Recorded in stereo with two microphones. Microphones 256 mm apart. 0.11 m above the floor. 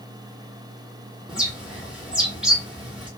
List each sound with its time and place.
1.3 s a bird: 5° right (ahead or behind), 1.2 m